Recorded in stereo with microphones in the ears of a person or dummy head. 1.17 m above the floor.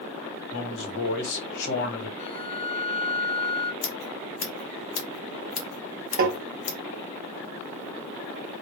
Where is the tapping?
45° right (ahead or behind), 0.7 m.